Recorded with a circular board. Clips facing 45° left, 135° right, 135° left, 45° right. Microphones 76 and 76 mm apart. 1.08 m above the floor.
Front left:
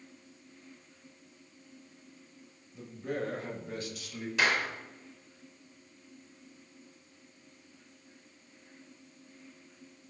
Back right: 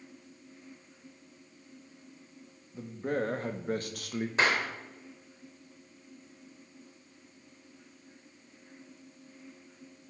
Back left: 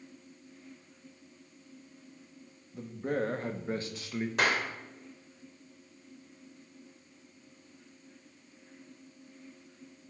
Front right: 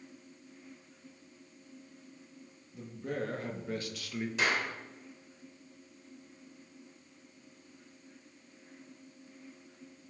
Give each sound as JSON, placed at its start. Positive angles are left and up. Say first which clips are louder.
{"t": 2.7, "sound": "a man speaking", "louder": "back right 4 dB, back left 5 dB", "azimuth_deg": 175, "distance_m": 2.5}
{"t": 4.4, "sound": "a clap", "louder": "back right 1 dB, back left 2 dB", "azimuth_deg": 165, "distance_m": 3.5}